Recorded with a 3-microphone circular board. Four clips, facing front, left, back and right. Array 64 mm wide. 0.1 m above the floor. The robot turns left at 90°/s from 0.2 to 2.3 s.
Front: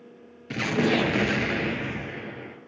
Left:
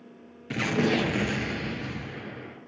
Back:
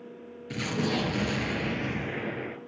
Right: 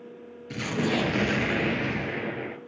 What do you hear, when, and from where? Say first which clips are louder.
0.5 s an explosion: left 2 dB, front 6 dB; 45° left, 0.9 m; by 2.6 s 115° right, 0.9 m